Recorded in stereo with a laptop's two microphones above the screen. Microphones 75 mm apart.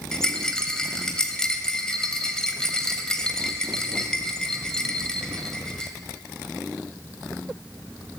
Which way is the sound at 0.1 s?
10° left (ahead or behind).